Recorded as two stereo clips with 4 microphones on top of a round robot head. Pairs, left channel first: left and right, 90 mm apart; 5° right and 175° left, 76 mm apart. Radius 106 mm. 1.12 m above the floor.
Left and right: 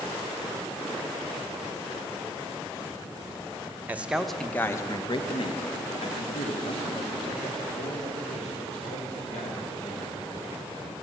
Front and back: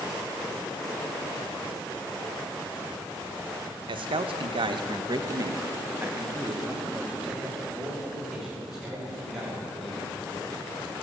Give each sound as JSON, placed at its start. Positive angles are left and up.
{"t": 3.9, "sound": "a man speaking", "azimuth_deg": -165, "distance_m": 1.0}